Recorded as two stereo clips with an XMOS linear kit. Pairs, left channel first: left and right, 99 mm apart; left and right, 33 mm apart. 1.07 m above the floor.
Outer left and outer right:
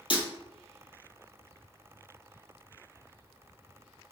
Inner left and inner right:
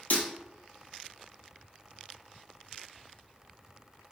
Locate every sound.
0.1 s breaking glass: 55° left (ahead or behind), 1.7 m